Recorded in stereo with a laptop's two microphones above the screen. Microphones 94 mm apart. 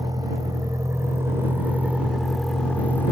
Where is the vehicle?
45° right (ahead or behind); by 3.1 s 30° left (ahead or behind).